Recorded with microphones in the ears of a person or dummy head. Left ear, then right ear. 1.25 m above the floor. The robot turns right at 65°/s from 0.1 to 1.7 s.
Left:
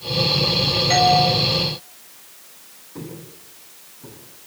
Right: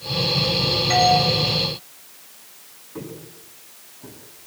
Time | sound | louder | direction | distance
0.9 | a doorbell | left 1 dB | centre (ahead or behind) | 5.5 m
3.0 | footsteps | right 1 dB | 30° right (ahead or behind) | 8.5 m